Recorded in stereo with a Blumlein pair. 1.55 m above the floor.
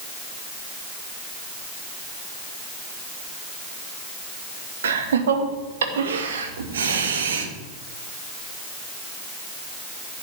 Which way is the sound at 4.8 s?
65° right.